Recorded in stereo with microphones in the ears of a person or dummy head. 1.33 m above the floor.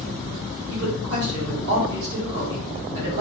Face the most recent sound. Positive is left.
turn(degrees=-60)  # may be behind; listen again after turning